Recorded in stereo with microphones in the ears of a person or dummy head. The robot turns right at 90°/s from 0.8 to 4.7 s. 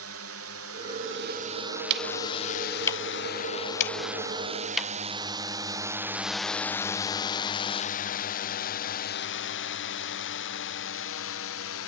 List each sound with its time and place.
0.0 s a drone: 70° right (ahead or behind); by 11.9 s 70° left (ahead or behind)
1.9 s ticking: 65° right (ahead or behind); by 4.9 s centre (ahead or behind)